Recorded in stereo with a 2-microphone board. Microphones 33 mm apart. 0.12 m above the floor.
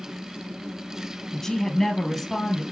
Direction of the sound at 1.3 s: 15° left (ahead or behind).